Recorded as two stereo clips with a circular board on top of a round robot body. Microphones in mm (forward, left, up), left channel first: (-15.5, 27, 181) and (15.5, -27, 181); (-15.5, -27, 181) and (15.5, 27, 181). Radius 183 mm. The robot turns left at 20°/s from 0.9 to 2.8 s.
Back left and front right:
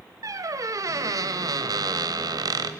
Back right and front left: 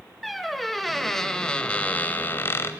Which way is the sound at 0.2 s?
30° right.